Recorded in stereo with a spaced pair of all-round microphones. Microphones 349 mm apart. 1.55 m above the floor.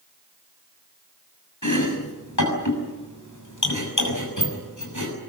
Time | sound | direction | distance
1.6 | chopping | 55° left (ahead or behind) | 6.5 m